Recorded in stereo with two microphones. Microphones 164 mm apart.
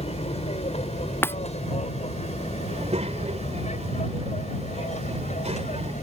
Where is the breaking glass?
15° left (ahead or behind).